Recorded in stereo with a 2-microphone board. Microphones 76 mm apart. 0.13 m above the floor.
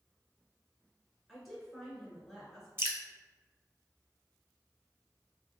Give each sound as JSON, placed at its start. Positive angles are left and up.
{"t": 1.3, "sound": "a woman speaking", "side_deg": 0, "distance_m": 1.7}
{"t": 2.8, "sound": "dripping", "side_deg": -35, "distance_m": 0.6}